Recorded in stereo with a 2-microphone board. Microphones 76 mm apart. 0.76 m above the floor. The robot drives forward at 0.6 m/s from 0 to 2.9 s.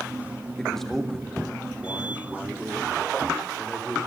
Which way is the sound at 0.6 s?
5° left (ahead or behind).